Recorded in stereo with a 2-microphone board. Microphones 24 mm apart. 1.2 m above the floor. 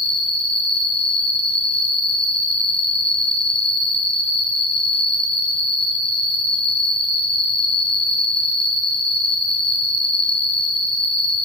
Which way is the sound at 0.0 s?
30° left (ahead or behind).